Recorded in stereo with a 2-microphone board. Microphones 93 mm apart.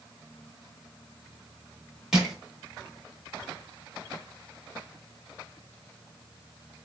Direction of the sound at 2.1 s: 5° right (ahead or behind).